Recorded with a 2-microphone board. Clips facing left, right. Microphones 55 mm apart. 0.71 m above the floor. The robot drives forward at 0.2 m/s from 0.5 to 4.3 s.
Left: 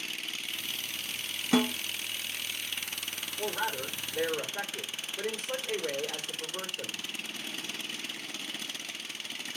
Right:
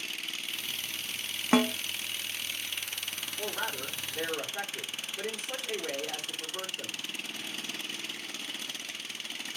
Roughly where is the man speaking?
Centre.